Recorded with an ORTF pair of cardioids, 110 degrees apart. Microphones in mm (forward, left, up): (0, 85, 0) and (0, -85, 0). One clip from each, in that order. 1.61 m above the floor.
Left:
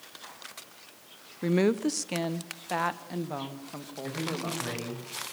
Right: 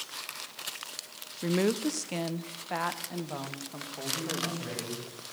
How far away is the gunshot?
I don't hear a gunshot.